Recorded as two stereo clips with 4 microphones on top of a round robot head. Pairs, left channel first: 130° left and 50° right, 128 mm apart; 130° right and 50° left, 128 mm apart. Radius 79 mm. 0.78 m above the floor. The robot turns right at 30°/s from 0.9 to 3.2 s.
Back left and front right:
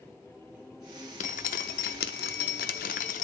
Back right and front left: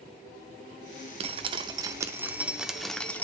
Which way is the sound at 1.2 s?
90° left.